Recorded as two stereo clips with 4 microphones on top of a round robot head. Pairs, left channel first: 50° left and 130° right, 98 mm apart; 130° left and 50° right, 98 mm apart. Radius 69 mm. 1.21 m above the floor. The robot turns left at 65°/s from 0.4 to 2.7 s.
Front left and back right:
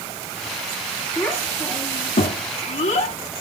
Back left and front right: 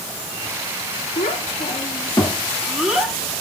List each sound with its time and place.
1.2 s a child speaking: 130° left, 2.5 m; by 3.1 s 30° left, 2.5 m